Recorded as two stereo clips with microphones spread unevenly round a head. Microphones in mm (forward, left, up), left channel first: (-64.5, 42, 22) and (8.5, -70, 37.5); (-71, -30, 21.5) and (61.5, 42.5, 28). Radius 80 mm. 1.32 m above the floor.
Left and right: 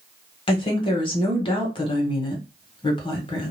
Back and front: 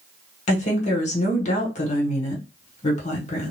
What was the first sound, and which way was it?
A woman speaking, 170° left.